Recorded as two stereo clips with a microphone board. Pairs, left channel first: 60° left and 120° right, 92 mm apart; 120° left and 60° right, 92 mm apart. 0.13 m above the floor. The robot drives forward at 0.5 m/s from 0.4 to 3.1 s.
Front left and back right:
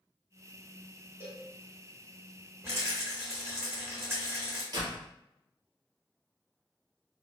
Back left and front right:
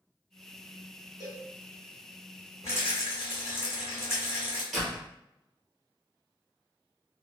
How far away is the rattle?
About 1.7 m.